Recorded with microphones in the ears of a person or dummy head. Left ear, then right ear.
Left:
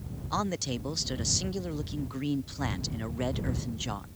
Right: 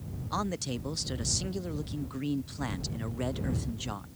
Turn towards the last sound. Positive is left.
turn(degrees=5)  # may be behind; listen again after turning